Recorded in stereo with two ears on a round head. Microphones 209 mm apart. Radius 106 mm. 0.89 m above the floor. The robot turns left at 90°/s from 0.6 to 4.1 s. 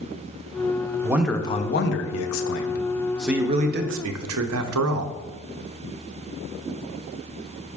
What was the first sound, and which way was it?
A man speaking, 160° right.